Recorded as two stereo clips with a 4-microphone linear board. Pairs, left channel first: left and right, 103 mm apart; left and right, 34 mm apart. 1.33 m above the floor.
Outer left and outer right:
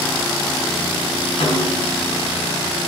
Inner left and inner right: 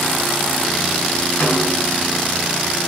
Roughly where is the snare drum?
Left.